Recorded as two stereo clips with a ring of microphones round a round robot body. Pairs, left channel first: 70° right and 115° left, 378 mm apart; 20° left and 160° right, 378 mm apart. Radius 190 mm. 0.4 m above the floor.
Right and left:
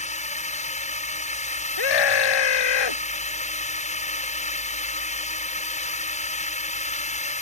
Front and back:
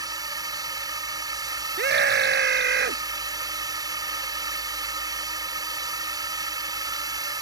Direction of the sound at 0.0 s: 95° right.